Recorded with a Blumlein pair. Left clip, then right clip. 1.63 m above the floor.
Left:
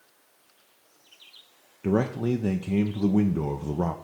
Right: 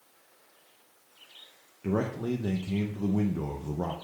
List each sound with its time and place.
1.8 s a man speaking: 20° left, 0.5 m